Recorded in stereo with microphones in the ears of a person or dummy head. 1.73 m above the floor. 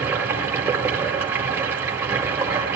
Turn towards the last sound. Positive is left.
turn(degrees=-10)  # may be behind; listen again after turning